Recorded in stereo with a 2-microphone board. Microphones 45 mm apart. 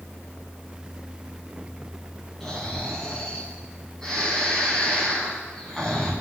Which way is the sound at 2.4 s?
10° left (ahead or behind).